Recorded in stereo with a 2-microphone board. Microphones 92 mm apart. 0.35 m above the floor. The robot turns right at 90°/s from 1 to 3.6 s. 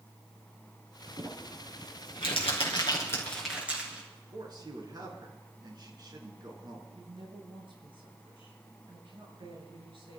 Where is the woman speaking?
70° right (ahead or behind), 6.5 m.